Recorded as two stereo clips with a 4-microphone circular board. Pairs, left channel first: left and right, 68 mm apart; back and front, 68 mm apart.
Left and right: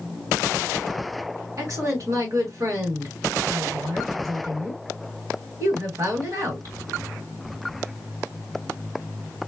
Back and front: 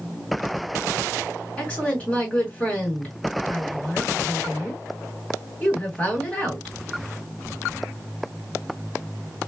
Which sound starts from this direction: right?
A woman speaking, at 1.6 s.